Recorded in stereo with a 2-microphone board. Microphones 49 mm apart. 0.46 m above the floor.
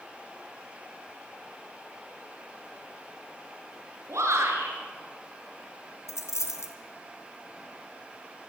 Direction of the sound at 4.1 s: 75° right (ahead or behind).